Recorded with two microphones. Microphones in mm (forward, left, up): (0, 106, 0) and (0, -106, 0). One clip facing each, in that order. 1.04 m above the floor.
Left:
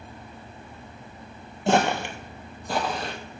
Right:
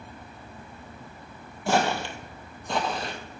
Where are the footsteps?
25° left (ahead or behind), 1.1 m; by 3.1 s centre (ahead or behind), 1.5 m.